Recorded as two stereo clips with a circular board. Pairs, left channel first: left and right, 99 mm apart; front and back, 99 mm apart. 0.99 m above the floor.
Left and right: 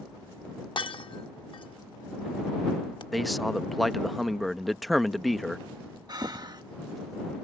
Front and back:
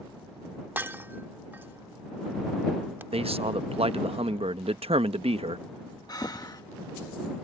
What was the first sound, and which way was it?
Breaking glass, 110° left.